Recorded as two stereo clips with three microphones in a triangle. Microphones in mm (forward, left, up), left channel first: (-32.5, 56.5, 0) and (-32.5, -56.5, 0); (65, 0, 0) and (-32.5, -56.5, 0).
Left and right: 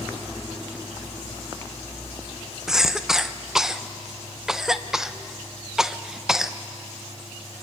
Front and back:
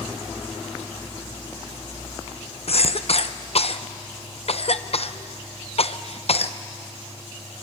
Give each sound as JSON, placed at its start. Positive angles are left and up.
{"t": 2.7, "sound": "a cough", "azimuth_deg": -5, "distance_m": 0.7}